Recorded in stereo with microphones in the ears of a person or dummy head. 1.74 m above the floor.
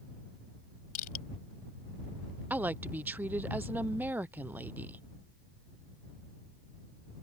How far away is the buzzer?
I don't hear a buzzer.